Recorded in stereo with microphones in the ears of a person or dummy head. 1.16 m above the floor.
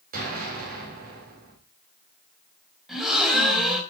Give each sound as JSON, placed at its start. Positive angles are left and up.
{"t": 0.1, "sound": "an explosion", "side_deg": -45, "distance_m": 4.0}
{"t": 2.9, "sound": "a gasp", "side_deg": 0, "distance_m": 4.0}